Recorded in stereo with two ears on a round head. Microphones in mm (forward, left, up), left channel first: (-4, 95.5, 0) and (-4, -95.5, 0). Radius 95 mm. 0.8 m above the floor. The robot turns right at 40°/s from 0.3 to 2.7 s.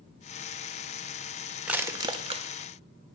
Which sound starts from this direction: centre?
Crushing, at 1.7 s.